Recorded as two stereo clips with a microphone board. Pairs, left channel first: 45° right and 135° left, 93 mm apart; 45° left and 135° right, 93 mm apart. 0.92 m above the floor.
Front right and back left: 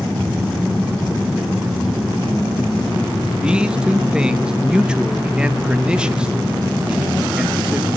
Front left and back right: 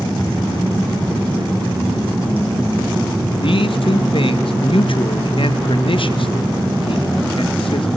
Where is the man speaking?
55° left, 0.7 m.